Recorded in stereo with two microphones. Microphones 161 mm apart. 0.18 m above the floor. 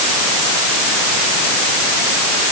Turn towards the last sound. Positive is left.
No sound to turn to.